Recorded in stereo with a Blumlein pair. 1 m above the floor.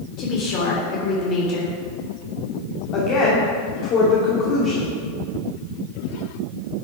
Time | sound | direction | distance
0.2 | a woman speaking | 35° left | 3.5 m
2.9 | a woman speaking | 35° left | 3 m